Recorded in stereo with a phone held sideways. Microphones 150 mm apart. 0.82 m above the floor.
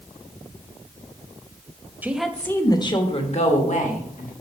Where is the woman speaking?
10° right (ahead or behind), 0.9 m; by 4.3 s 60° left (ahead or behind), 2 m.